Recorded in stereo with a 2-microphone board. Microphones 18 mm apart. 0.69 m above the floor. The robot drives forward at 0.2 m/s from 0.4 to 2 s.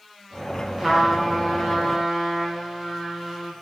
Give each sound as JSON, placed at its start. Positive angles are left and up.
{"t": 0.8, "sound": "a trumpet", "side_deg": -20, "distance_m": 0.5}